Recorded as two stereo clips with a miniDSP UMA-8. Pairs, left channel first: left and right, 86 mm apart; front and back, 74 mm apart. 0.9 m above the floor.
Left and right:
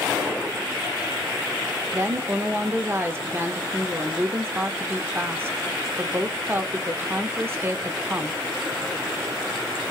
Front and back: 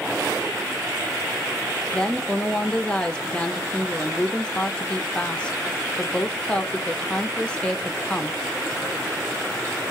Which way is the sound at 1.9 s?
65° right.